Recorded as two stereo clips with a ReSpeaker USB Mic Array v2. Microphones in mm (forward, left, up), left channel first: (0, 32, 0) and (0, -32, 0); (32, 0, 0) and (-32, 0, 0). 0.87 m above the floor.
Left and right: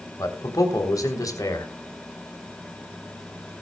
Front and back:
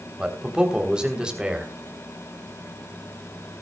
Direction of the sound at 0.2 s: 105° left.